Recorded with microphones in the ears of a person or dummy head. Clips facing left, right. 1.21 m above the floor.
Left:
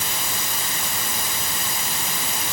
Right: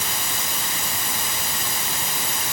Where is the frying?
I don't hear frying.